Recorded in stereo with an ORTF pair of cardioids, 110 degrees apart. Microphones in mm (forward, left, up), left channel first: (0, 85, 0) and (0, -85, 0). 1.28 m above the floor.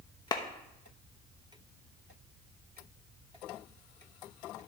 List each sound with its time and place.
0.3 s a clap: 25° left, 0.9 m